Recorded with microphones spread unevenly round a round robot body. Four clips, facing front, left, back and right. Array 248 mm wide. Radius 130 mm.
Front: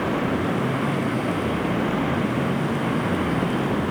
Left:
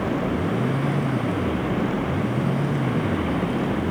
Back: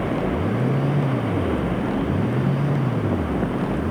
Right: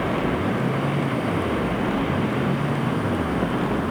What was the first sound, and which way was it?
Only background noise.